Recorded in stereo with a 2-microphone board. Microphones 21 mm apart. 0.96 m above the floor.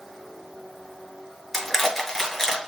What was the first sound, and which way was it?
Crushing, 15° left (ahead or behind).